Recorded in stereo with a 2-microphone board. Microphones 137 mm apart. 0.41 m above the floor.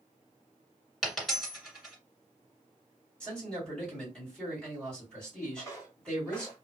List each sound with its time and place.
1.0 s a dropped coin: centre (ahead or behind), 1.6 m
3.2 s a man speaking: 5° left (ahead or behind), 2 m
5.6 s footsteps: 25° left (ahead or behind), 1.4 m; by 6.7 s centre (ahead or behind), 1.2 m